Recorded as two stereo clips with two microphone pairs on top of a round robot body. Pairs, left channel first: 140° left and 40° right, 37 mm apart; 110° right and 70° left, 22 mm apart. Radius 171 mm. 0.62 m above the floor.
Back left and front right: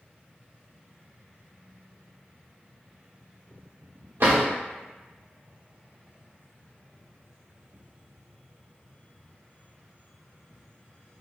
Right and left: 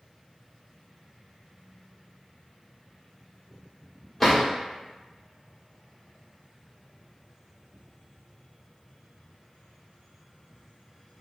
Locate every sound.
4.2 s a drawer: 25° right, 1.1 m